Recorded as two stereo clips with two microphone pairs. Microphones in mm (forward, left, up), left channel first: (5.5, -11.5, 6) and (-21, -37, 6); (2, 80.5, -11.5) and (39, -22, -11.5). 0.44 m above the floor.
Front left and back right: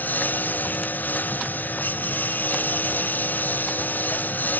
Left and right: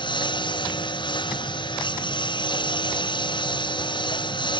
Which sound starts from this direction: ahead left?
A lawn mower, at 0.0 s.